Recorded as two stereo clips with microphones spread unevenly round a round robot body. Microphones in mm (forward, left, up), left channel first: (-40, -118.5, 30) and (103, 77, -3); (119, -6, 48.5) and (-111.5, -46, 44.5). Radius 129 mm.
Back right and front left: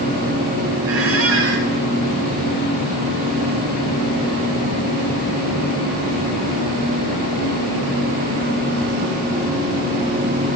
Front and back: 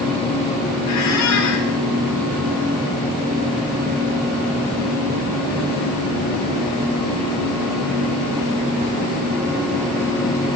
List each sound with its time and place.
0.9 s a squeak: 25° left, 1.2 m